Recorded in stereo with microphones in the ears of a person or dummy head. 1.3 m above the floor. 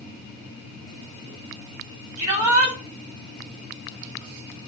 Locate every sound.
2.2 s a shout: 70° right (ahead or behind), 6 m